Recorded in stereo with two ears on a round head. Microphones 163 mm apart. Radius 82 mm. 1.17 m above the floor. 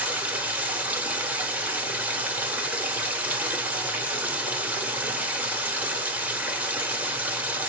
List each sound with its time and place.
0.0 s running water: 5° right (ahead or behind), 1.1 m